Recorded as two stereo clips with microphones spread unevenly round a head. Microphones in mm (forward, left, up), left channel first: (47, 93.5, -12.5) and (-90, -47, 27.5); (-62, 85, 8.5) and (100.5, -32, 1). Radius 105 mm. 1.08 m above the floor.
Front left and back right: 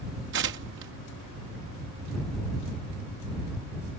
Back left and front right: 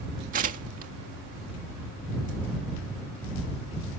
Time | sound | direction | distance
0.3 | tearing paper | 90° right | ?